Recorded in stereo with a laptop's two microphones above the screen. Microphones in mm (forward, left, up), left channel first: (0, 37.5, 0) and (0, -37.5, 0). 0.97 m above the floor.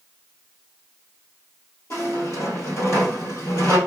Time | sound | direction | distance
1.9 | a squeak | 40° left (ahead or behind) | 1.6 m